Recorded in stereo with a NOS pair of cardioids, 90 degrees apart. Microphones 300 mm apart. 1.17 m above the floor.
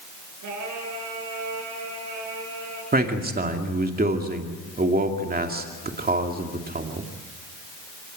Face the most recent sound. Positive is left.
turn(degrees=-30)